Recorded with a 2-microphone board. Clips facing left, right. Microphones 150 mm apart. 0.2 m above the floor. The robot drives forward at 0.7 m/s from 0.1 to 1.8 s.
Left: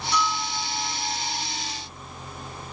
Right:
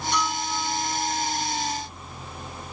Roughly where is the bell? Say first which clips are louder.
Left 2 dB; right.